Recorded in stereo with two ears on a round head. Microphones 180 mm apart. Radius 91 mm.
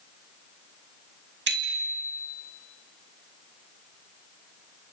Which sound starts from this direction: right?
A bicycle bell, at 1.5 s.